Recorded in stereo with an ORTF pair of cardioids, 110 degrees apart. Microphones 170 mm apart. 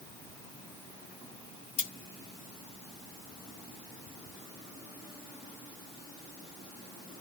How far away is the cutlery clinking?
About 1.9 m.